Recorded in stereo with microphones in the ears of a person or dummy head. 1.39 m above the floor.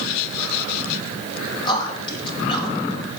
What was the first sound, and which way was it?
A man speaking, 25° left (ahead or behind).